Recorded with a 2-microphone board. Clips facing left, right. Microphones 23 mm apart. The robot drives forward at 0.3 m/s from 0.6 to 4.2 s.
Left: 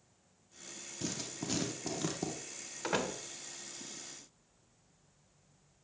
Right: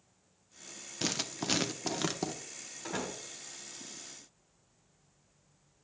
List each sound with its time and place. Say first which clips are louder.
1.0 s writing: right 6 dB; 55° right (ahead or behind), 0.6 m; by 2.3 s 35° right (ahead or behind), 0.9 m
2.8 s a door slam: left 4 dB; 80° left, 1.5 m; by 3.2 s 85° left, 1.5 m